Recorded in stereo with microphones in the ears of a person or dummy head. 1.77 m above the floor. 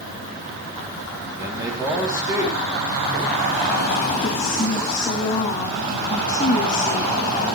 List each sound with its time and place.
1.4 s a man speaking: 10° right (ahead or behind), 3.5 m; by 4.1 s 20° right (ahead or behind), 7.5 m
4.2 s a woman speaking: 25° left (ahead or behind), 3.5 m